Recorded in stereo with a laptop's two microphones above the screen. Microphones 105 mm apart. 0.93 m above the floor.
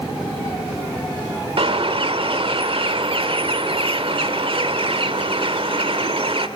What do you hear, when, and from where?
1.6 s a bird: 60° right (ahead or behind), 1.5 m